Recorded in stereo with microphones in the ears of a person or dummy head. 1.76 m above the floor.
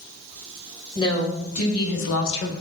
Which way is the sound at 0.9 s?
25° left (ahead or behind).